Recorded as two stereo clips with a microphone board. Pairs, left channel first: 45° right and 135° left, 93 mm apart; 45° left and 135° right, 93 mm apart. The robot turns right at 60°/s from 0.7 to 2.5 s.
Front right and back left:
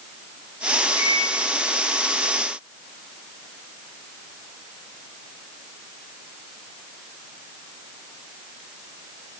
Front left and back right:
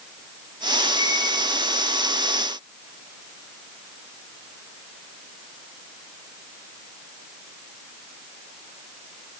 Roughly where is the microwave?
Behind.